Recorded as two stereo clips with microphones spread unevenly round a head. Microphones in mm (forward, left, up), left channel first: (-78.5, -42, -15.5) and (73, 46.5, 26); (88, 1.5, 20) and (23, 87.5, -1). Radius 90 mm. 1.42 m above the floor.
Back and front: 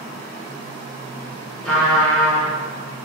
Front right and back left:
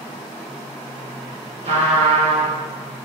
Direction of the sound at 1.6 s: 120° left.